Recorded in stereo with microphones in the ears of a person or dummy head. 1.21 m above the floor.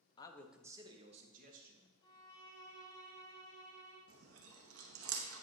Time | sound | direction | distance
0.2 | a man speaking | 35° left (ahead or behind) | 0.8 m
2.0 | a violin | 30° left (ahead or behind) | 3 m
4.1 | chewing | 85° right | 1.0 m